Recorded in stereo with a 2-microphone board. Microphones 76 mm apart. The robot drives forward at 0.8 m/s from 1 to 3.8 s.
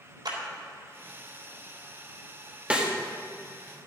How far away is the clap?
About 3.5 m.